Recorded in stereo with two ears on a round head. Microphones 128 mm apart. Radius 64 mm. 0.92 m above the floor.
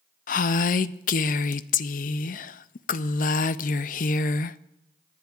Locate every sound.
0.3 s a woman speaking: 60° left (ahead or behind), 0.5 m